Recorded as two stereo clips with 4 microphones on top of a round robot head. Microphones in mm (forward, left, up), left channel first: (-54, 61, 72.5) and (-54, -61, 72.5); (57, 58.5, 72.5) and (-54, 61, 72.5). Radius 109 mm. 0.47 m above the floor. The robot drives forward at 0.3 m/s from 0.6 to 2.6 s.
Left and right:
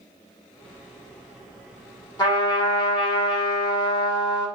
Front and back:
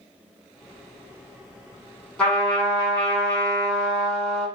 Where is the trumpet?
75° left, 1.4 m; by 4.5 s 85° left, 1.3 m.